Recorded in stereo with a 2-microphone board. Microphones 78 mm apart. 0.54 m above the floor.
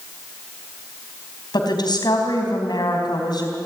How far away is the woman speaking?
About 3.5 m.